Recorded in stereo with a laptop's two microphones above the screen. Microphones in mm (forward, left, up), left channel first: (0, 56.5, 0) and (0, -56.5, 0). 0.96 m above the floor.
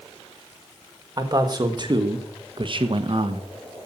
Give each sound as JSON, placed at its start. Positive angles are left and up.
{"t": 1.2, "sound": "a man speaking", "side_deg": -35, "distance_m": 1.7}